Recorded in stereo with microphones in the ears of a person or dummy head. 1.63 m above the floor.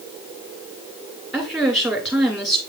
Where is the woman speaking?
Centre (ahead or behind), 2 m.